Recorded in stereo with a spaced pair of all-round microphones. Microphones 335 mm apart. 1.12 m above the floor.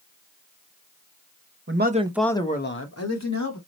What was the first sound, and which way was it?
A man speaking, 40° right (ahead or behind).